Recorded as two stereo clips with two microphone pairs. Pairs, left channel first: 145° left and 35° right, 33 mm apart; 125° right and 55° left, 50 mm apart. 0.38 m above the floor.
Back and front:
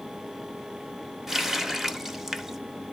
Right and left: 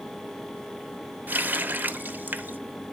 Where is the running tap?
45° left, 0.6 m.